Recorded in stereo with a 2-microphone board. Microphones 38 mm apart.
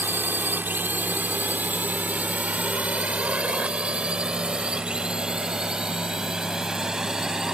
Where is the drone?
60° right (ahead or behind); by 7.5 s 15° right (ahead or behind).